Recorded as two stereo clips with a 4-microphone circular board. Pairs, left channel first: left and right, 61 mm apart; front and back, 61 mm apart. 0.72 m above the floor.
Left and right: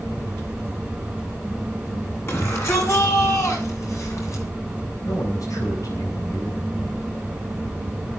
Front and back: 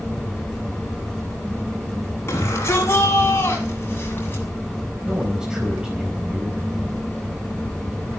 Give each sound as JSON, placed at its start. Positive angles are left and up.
{"t": 2.3, "sound": "a shout", "azimuth_deg": 45, "distance_m": 7.5}
{"t": 5.0, "sound": "a man speaking", "azimuth_deg": 105, "distance_m": 4.0}